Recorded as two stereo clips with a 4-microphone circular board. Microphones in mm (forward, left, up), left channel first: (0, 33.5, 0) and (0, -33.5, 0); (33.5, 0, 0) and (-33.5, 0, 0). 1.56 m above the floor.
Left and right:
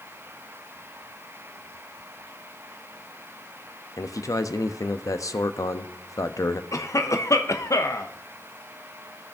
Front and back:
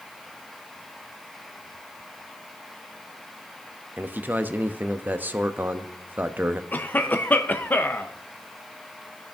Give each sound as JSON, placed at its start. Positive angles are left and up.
{"t": 4.0, "sound": "a man speaking", "azimuth_deg": 120, "distance_m": 0.6}
{"t": 6.7, "sound": "a cough", "azimuth_deg": 60, "distance_m": 0.8}